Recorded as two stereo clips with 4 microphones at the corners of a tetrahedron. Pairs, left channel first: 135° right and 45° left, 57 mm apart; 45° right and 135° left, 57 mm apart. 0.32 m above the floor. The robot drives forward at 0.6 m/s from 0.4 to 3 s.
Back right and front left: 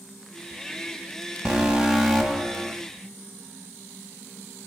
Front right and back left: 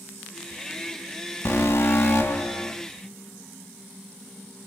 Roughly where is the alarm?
Ahead right.